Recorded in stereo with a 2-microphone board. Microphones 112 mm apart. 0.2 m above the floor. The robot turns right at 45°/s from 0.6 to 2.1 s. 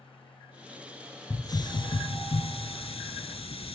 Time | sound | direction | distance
1.3 | a hiss | 30° left | 0.5 m